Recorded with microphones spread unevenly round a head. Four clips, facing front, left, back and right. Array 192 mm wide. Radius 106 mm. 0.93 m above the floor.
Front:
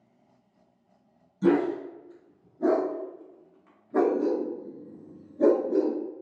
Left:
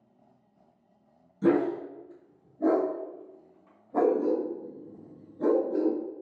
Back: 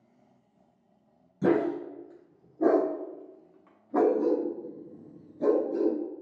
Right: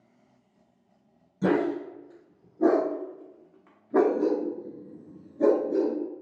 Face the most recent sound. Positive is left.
turn(degrees=-20)